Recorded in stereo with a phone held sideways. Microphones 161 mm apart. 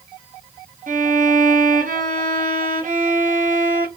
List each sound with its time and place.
0.9 s a violin: 55° right (ahead or behind), 0.8 m